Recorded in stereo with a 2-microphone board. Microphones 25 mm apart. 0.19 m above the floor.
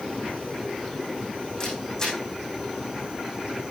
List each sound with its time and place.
1.6 s a camera shutter: 30° left (ahead or behind), 5.5 m